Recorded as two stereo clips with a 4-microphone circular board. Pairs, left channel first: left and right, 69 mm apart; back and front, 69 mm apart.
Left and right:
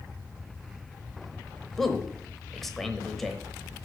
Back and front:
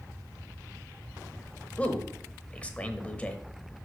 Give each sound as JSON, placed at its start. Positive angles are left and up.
{"t": 1.8, "sound": "a man speaking", "azimuth_deg": 165, "distance_m": 0.9}